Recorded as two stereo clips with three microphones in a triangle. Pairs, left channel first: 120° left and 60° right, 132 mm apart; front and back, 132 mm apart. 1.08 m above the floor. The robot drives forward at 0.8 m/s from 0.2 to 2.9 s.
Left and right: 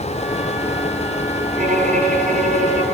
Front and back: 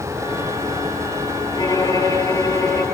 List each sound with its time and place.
1.6 s a violin: 60° right, 9 m; by 2.8 s 65° right, 8.5 m